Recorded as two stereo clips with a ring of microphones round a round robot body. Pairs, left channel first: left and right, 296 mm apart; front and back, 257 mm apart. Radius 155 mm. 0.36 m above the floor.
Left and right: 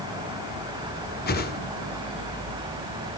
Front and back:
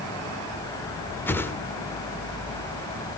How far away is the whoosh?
About 1.3 m.